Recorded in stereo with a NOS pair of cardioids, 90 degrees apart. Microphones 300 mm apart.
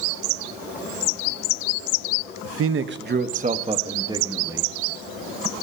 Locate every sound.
2.5 s a man speaking: 55° right, 0.9 m; by 4.7 s 10° right, 1.9 m